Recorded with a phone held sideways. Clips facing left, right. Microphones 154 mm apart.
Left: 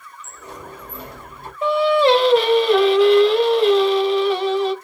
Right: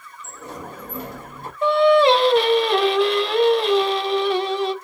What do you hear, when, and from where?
0.2 s a sliding door: 50° right (ahead or behind), 0.9 m
1.6 s singing: centre (ahead or behind), 0.8 m